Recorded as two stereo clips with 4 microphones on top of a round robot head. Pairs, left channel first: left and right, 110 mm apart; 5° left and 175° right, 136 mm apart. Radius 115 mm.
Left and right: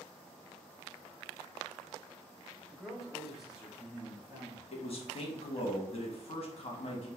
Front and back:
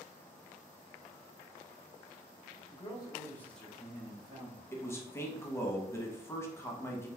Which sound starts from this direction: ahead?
A man speaking, at 2.7 s.